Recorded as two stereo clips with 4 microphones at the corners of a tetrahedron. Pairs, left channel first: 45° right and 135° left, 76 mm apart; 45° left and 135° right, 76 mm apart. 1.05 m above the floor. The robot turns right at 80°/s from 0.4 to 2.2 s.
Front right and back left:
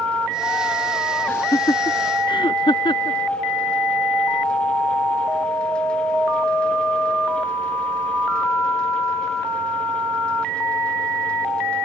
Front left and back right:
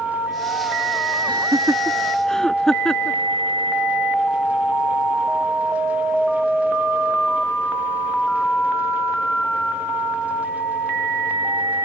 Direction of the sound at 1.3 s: 115° right.